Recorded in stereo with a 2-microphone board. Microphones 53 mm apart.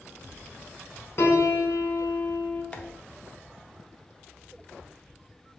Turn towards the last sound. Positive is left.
turn(degrees=20)  # may be behind; listen again after turning